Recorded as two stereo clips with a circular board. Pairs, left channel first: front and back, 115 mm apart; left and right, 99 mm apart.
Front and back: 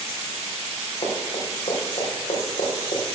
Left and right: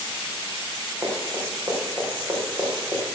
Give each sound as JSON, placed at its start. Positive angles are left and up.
{"t": 1.0, "sound": "running footsteps", "azimuth_deg": -35, "distance_m": 6.0}